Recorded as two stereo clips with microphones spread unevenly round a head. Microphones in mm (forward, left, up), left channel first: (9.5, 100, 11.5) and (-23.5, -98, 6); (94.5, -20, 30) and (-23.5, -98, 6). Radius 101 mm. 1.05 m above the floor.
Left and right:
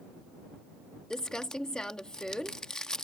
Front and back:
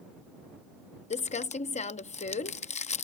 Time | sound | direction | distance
1.1 | crumpling | 5° right | ?